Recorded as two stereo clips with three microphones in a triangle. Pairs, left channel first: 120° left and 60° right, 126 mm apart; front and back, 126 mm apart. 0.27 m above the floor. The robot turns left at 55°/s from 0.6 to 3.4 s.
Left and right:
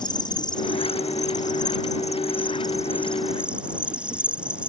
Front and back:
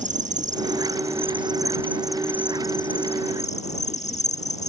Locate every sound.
0.0 s an insect: 175° left; by 4.7 s 20° left